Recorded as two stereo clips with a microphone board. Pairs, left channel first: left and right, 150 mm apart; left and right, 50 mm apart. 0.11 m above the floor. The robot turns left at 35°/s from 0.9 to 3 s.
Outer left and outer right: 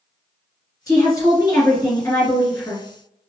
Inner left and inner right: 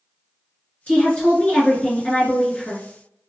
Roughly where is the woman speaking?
Left.